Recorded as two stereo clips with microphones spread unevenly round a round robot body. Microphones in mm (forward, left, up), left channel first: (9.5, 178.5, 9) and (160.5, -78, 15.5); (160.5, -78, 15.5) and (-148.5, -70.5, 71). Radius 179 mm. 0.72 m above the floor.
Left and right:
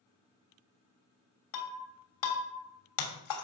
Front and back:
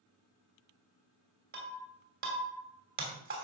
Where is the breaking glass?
110° left, 2.5 m.